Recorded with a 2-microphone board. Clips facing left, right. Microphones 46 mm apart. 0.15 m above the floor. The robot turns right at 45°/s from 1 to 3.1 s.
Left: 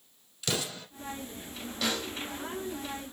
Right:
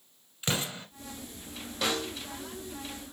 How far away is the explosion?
About 1.3 m.